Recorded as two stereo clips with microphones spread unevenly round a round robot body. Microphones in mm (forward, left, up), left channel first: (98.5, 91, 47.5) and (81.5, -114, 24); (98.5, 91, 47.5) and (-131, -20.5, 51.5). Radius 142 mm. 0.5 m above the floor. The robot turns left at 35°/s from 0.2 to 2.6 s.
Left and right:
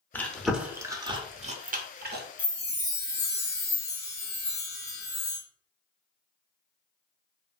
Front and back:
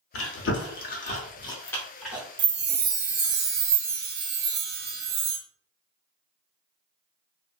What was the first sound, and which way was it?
Chewing, straight ahead.